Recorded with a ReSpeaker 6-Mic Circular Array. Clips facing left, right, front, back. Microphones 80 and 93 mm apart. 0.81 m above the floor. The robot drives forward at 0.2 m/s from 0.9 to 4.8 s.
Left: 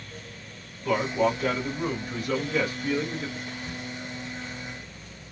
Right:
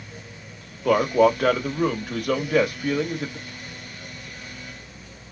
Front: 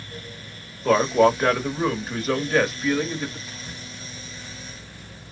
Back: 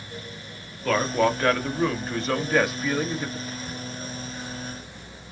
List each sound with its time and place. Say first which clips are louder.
0.8 s a man speaking: right 7 dB, front 5 dB; 75° right, 1.3 m; by 3.4 s 100° right, 1.3 m
3.5 s whispering: left 3 dB, back 5 dB; 120° left, 0.8 m; by 3.8 s 125° left, 0.8 m